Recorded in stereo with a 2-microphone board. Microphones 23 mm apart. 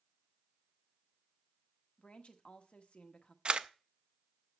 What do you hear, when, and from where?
2.0 s a woman speaking: 65° left (ahead or behind), 1.4 m
3.5 s a camera shutter: 45° right (ahead or behind), 0.6 m